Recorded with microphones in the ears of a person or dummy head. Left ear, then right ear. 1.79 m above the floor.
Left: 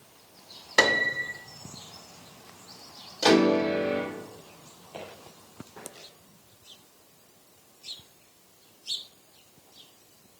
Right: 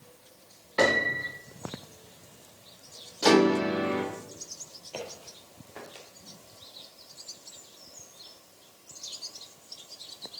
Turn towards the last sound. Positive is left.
turn(degrees=-35)  # may be behind; listen again after turning